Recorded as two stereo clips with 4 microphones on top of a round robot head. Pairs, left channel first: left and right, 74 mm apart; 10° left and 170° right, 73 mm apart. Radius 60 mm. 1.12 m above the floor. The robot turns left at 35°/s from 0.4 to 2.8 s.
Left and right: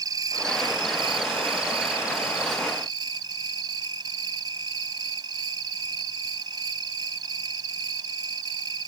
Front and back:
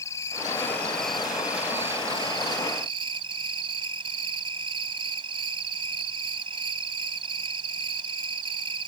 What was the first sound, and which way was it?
An insect, 55° right.